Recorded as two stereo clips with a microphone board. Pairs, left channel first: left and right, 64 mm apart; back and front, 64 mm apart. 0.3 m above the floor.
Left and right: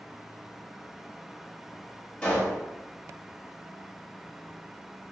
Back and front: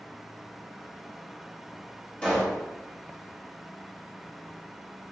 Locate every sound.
2.2 s a pop: 145° left, 1.5 m